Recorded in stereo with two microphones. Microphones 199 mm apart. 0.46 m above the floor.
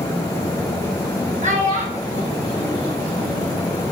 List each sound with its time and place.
1.4 s a child speaking: 40° right (ahead or behind), 0.6 m; by 3.6 s 30° right (ahead or behind), 1.6 m